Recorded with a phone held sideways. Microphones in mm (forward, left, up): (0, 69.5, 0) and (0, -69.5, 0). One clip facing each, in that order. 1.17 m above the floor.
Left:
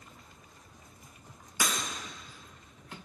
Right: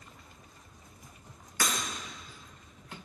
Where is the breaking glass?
15° left (ahead or behind), 3.5 m.